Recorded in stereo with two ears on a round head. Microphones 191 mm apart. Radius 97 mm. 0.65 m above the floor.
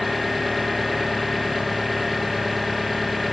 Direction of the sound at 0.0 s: Centre (ahead or behind).